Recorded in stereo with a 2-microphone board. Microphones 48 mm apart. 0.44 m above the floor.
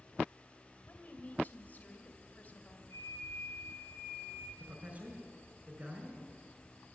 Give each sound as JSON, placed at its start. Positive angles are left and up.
{"t": 0.8, "sound": "a woman speaking", "side_deg": 35, "distance_m": 2.0}
{"t": 2.9, "sound": "a flute", "side_deg": 85, "distance_m": 3.5}
{"t": 4.6, "sound": "a man speaking", "side_deg": -30, "distance_m": 5.5}